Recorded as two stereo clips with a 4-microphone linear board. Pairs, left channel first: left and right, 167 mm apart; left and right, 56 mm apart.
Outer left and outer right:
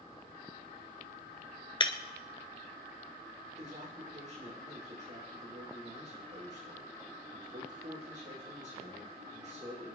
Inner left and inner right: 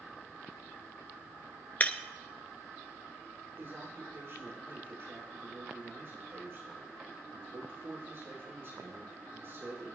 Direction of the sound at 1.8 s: 30° left (ahead or behind).